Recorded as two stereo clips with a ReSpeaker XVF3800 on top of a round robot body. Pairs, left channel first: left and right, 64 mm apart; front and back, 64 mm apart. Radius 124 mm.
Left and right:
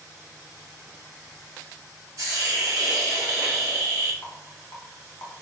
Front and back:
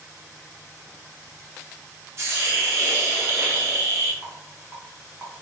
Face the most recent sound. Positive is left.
turn(degrees=125)